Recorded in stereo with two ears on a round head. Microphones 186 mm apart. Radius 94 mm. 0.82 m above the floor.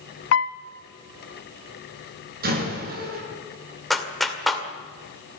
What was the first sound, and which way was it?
A piano, 65° left (ahead or behind).